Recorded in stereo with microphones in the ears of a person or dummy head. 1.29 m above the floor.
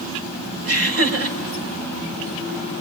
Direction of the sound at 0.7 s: 60° right (ahead or behind).